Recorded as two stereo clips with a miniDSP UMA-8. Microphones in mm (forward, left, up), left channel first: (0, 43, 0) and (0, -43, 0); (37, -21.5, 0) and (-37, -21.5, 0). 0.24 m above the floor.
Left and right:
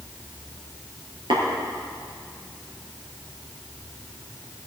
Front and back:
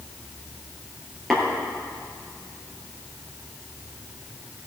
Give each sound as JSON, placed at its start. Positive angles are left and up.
{"t": 1.3, "sound": "tapping", "azimuth_deg": -90, "distance_m": 4.0}